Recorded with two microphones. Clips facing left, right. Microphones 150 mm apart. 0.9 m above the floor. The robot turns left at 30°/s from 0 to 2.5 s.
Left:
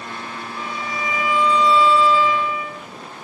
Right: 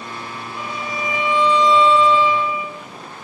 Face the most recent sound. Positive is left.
turn(degrees=-15)  # may be behind; listen again after turning